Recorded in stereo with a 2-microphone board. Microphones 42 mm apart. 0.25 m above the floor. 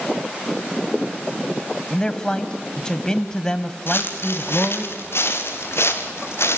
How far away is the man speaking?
About 1.1 m.